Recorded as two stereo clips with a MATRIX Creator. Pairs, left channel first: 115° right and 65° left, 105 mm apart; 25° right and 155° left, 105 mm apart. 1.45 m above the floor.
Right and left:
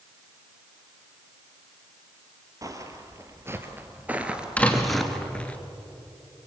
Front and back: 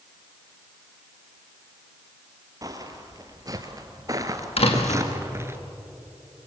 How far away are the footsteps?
About 2.5 m.